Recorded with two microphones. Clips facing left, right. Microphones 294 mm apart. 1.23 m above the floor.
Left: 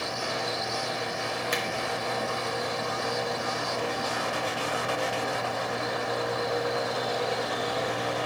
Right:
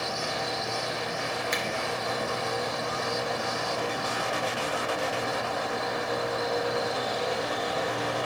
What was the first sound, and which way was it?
A finger snap, 35° left (ahead or behind).